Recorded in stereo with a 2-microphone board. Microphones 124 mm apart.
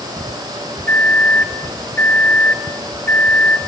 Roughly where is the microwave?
Centre.